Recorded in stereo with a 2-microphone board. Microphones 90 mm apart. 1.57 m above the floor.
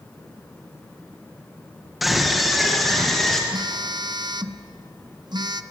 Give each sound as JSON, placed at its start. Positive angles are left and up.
{"t": 2.0, "sound": "a scream", "side_deg": 0, "distance_m": 1.7}
{"t": 3.5, "sound": "a phone buzzing", "side_deg": -50, "distance_m": 0.8}